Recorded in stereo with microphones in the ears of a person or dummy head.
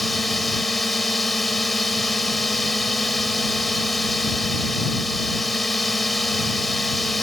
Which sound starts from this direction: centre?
A drone, at 0.0 s.